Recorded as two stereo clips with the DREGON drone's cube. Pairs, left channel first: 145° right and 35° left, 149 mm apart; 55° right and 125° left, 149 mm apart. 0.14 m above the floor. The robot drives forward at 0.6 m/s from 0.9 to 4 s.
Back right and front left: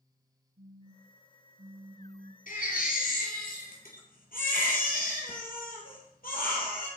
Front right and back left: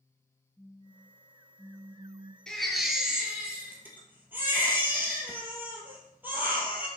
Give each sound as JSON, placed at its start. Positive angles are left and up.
{"t": 0.6, "sound": "a phone buzzing", "azimuth_deg": 30, "distance_m": 0.9}
{"t": 2.5, "sound": "a baby crying", "azimuth_deg": -140, "distance_m": 1.2}